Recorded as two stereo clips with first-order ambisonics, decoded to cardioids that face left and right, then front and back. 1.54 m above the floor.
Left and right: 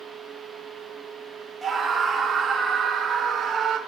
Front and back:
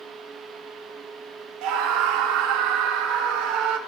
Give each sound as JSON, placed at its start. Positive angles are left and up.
{"t": 1.6, "sound": "a scream", "azimuth_deg": -170, "distance_m": 3.0}